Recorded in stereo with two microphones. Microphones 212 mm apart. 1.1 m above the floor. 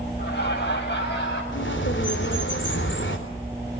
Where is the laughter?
50° left (ahead or behind), 8 m; by 1.4 s 55° left (ahead or behind), 8.5 m.